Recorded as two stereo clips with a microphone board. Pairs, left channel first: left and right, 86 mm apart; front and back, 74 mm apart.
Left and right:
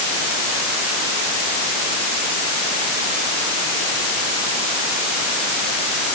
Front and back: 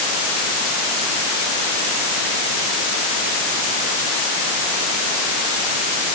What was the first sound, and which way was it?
Only background noise.